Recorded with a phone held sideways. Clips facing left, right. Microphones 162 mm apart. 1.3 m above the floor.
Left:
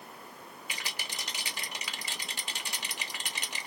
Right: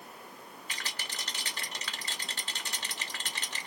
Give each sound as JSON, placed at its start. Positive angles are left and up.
{"t": 0.7, "sound": "a rattle", "side_deg": 10, "distance_m": 0.8}